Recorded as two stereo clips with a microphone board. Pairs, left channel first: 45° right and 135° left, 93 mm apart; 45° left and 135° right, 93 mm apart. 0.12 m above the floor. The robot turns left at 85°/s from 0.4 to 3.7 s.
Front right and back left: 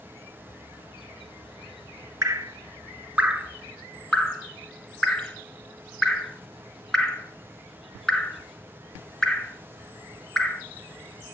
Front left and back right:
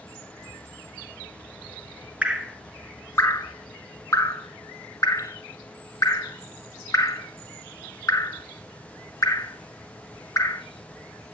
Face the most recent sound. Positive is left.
turn(degrees=30)